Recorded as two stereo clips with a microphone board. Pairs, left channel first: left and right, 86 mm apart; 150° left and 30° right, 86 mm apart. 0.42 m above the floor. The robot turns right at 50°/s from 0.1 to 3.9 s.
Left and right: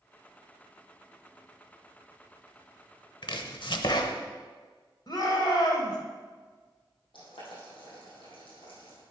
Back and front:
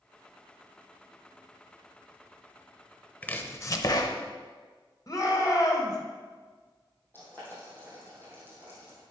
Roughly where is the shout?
Left.